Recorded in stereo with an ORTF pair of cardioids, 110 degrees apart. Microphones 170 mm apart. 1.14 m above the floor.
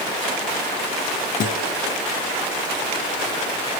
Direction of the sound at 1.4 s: 60° left.